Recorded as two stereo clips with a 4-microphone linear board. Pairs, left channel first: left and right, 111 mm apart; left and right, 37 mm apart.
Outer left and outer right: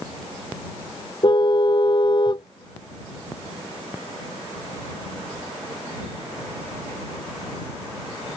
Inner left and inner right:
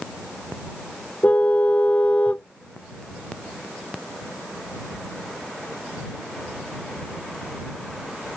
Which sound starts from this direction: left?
A car horn, at 1.2 s.